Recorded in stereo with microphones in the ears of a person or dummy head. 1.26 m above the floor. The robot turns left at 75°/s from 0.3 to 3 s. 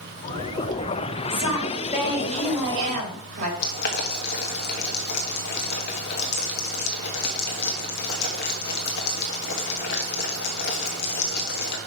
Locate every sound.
1.3 s a woman speaking: 85° left, 3 m; by 3.5 s 40° right, 3 m
3.6 s boiling: 60° left (ahead or behind), 1.5 m